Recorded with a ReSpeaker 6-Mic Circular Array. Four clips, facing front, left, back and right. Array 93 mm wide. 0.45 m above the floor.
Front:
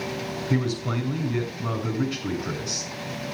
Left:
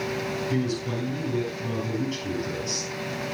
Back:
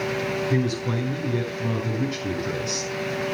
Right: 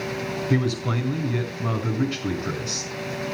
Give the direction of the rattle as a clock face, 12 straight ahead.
I don't hear a rattle.